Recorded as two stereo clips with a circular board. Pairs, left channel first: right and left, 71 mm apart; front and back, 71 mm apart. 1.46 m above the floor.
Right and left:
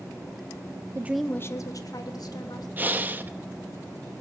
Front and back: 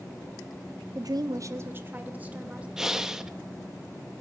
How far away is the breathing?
About 0.8 m.